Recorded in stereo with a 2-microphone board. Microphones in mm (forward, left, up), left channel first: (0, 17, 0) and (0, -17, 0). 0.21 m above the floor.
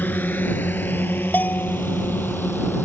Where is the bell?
60° left (ahead or behind).